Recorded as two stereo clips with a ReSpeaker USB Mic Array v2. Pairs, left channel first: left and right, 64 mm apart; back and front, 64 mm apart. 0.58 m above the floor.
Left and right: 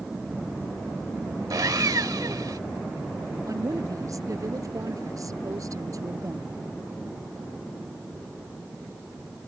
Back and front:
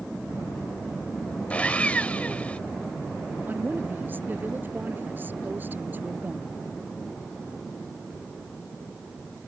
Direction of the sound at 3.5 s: 60° right.